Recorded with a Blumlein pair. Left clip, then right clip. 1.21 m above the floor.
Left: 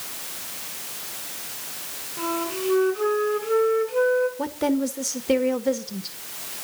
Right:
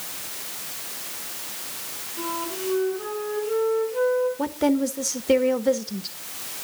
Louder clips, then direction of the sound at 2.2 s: Left 3 dB; 70° left.